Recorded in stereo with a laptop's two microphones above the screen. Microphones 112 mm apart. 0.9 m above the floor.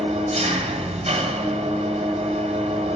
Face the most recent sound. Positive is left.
turn(degrees=-75)  # may be behind; listen again after turning